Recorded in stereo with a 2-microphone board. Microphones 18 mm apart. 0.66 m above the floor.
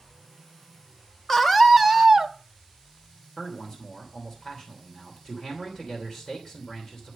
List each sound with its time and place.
1.3 s a scream: 25° left (ahead or behind), 0.9 m; by 2.3 s 25° right (ahead or behind), 0.8 m
3.4 s a man speaking: 45° left (ahead or behind), 3 m